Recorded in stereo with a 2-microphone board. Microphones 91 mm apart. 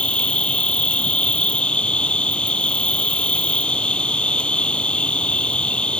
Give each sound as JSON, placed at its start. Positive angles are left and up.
{"t": 0.0, "sound": "an insect", "side_deg": 10}